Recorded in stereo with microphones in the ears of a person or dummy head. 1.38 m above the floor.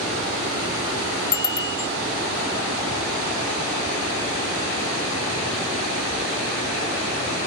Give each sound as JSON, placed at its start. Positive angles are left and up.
{"t": 1.3, "sound": "a bicycle bell", "side_deg": 25}